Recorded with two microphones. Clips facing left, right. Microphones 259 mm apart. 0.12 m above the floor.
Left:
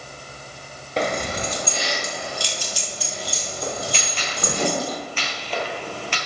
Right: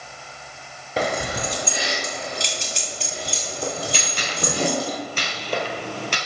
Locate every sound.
1.0 s keys jangling: 5° right (ahead or behind), 1.4 m; by 4.9 s 35° right (ahead or behind), 3.5 m
3.9 s a gunshot: 45° right (ahead or behind), 1.4 m